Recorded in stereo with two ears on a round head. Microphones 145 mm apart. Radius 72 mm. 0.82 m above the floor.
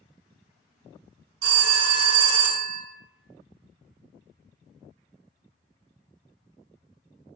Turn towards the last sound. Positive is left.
turn(degrees=-65)  # may be behind; listen again after turning